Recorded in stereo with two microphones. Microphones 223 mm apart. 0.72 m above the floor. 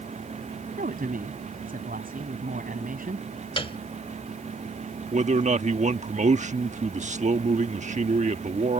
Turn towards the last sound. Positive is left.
turn(degrees=-30)  # may be behind; listen again after turning